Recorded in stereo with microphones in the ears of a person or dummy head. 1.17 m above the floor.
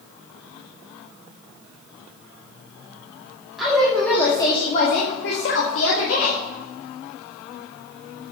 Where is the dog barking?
I don't hear a dog barking.